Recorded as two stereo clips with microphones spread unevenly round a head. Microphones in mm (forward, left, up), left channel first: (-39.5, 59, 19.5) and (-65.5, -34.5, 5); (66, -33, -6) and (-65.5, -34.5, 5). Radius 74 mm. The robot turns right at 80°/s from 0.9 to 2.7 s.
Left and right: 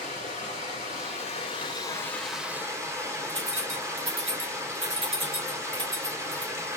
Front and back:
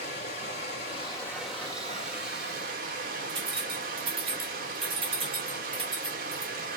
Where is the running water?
50° left, 2.5 m; by 6.8 s 165° right, 2.5 m.